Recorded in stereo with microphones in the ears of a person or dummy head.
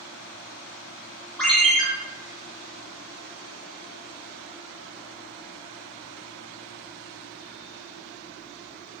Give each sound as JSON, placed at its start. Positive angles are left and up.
{"t": 1.4, "sound": "a ringtone", "side_deg": -5, "distance_m": 1.0}